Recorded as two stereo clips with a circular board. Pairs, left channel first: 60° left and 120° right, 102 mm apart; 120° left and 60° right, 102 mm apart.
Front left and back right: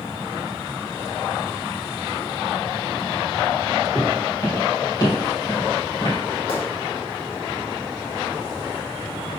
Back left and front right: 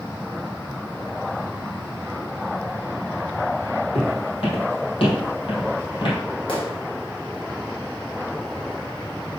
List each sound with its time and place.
4.0 s footsteps: 115° left, 3.5 m; by 6.2 s 95° left, 3 m
6.5 s a gunshot: 90° left, 1.7 m